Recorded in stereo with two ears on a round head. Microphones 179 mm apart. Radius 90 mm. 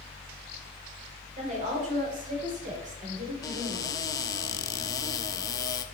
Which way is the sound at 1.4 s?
40° right (ahead or behind).